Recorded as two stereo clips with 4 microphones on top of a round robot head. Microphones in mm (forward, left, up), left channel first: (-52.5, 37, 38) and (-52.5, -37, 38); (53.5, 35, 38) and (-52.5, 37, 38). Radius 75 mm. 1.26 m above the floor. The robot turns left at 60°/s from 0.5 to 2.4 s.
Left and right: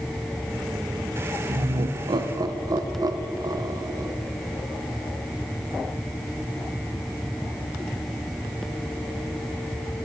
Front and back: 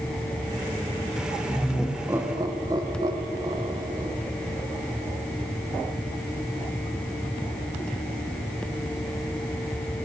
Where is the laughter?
70° right, 1.0 m; by 4.1 s 125° right, 1.0 m.